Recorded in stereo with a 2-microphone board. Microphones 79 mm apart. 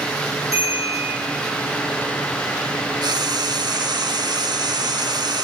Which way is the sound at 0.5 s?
40° left (ahead or behind).